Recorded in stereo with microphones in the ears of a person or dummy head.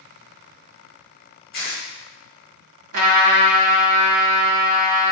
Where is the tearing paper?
35° left (ahead or behind), 1.2 m.